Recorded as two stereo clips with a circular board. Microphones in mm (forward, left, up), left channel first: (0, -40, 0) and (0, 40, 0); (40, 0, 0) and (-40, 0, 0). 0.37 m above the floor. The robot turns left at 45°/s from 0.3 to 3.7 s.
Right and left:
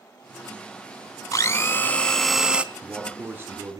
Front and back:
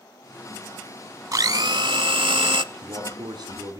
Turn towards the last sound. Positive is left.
turn(degrees=140)